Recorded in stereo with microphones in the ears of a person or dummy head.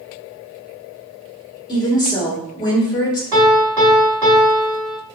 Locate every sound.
1.7 s a woman speaking: 25° left (ahead or behind), 1.5 m
3.3 s a piano: 20° right (ahead or behind), 0.8 m